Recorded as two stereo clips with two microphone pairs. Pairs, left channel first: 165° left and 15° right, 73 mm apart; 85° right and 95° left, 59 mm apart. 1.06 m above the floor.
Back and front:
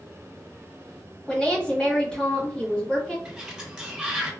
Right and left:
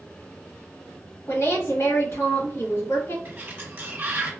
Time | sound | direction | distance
1.3 | a woman speaking | 120° right | 1.4 m
3.2 | a sliding door | 60° left | 0.7 m